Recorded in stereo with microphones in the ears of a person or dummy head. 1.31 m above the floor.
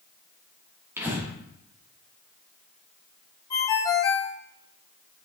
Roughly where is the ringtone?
Left.